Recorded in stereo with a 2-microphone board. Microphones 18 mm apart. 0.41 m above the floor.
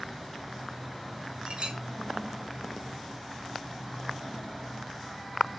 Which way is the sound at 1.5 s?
55° right (ahead or behind).